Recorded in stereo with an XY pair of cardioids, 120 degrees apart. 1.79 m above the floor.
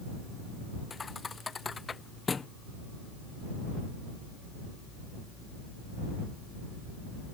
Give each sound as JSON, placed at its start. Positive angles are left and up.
{"t": 0.9, "sound": "a thud", "azimuth_deg": 25}